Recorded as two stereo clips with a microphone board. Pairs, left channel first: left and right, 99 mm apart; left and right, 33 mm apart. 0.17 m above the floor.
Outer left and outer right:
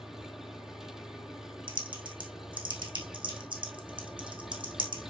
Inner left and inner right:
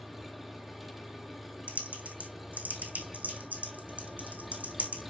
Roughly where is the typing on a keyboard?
Right.